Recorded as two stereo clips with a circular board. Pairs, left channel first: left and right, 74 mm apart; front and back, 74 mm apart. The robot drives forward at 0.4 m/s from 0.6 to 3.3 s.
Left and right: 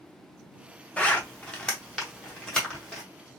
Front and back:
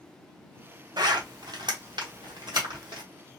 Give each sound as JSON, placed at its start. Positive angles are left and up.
{"t": 1.0, "sound": "a zipper", "azimuth_deg": 165, "distance_m": 0.6}